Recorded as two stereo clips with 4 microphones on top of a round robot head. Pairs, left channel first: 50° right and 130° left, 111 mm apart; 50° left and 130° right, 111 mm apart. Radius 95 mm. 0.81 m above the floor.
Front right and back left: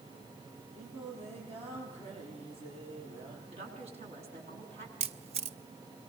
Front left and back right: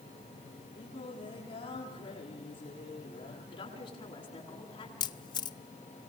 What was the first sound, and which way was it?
Singing, 100° left.